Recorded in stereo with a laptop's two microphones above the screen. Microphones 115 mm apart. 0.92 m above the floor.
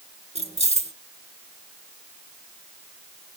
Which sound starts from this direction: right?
Keys jangling, at 0.3 s.